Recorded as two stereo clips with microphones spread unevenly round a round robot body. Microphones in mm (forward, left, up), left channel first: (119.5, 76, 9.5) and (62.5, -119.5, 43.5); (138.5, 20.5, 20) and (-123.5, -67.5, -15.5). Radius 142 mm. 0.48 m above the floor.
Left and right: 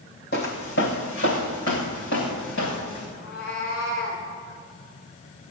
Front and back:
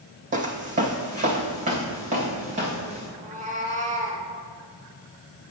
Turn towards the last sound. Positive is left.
turn(degrees=130)